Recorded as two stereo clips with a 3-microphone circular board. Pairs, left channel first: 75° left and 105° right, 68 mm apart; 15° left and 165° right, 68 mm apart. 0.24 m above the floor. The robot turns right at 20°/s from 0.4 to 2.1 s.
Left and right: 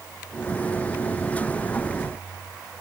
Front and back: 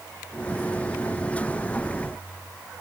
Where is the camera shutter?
No camera shutter in this recording.